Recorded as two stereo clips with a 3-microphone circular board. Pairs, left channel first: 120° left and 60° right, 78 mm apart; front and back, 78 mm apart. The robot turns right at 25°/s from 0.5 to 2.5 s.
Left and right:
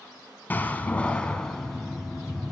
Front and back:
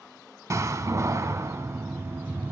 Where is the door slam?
170° left, 1.3 m; by 2.5 s 140° right, 1.3 m.